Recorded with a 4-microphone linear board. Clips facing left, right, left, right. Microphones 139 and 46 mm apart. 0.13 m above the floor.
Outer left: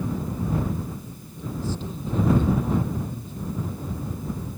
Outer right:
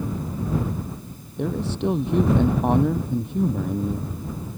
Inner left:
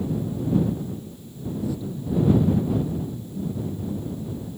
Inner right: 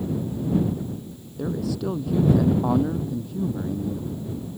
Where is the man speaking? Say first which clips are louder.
Outer right 6 dB, inner right 2 dB; 70° right (ahead or behind).